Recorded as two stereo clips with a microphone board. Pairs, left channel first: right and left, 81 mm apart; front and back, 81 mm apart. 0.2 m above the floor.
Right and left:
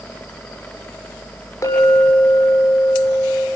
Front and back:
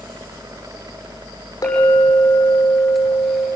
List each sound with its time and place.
1.6 s a clink: 45° right, 7 m